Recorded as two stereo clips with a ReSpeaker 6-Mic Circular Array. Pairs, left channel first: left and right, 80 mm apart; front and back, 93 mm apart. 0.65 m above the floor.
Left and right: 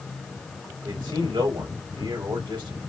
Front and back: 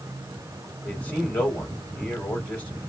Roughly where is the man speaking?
Right.